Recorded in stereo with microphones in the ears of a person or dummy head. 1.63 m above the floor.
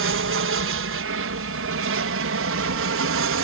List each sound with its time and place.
0.0 s an aircraft: 60° right (ahead or behind); by 3.4 s 65° right (ahead or behind)